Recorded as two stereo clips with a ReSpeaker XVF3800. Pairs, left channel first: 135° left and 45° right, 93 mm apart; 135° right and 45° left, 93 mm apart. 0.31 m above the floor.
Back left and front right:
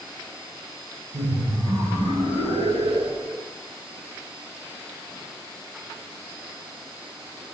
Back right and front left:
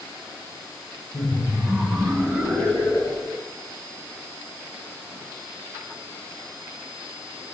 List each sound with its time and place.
1.1 s laughter: 65° right, 6.5 m; by 3.4 s 60° right, 8.5 m